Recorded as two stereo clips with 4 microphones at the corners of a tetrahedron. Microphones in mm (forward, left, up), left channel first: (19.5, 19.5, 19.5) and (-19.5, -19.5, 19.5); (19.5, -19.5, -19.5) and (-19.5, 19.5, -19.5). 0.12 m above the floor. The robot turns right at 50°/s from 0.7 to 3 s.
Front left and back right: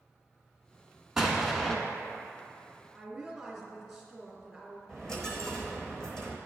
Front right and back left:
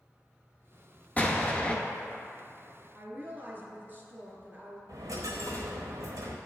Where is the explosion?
65° right, 0.8 m; by 1.8 s 35° right, 0.8 m.